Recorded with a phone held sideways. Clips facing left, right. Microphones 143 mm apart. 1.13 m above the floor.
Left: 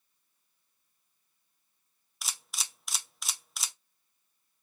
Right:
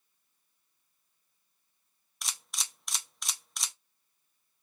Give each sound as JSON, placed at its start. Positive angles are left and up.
{"t": 2.2, "sound": "a camera shutter", "side_deg": 0, "distance_m": 0.6}